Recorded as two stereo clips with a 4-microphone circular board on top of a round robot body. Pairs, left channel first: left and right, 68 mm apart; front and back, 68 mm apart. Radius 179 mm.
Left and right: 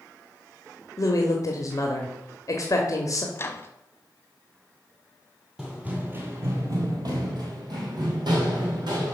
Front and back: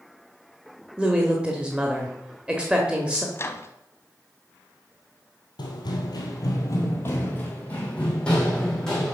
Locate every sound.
1.0 s a woman speaking: 110° left, 1.5 m
3.4 s a microwave: 45° left, 1.1 m
5.6 s running footsteps: 10° right, 1.1 m; by 9.1 s 85° right, 2.5 m